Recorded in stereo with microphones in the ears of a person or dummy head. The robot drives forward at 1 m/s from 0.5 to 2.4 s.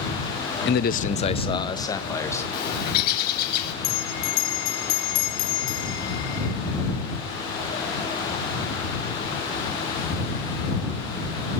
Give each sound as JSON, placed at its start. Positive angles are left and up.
{"t": 0.7, "sound": "a man speaking", "side_deg": 50, "distance_m": 0.6}
{"t": 2.5, "sound": "a bird", "side_deg": 55, "distance_m": 5.0}
{"t": 3.8, "sound": "a bell", "side_deg": 65, "distance_m": 2.5}